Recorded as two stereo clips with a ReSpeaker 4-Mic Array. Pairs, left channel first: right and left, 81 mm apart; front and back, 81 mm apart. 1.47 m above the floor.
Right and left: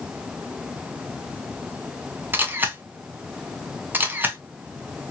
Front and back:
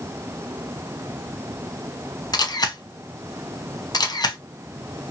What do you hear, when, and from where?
2.3 s a camera shutter: 25° left, 0.6 m